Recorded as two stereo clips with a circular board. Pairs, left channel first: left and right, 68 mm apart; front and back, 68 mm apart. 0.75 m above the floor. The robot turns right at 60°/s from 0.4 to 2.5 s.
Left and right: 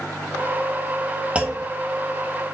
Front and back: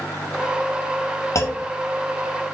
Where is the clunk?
25° right, 0.8 m; by 1.7 s 5° right, 0.8 m.